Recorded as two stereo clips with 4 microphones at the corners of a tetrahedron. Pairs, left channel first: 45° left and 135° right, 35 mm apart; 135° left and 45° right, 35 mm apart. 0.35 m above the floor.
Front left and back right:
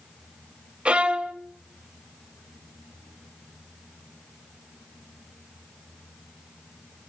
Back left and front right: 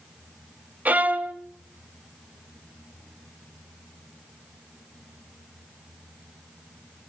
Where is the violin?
80° right, 0.8 m.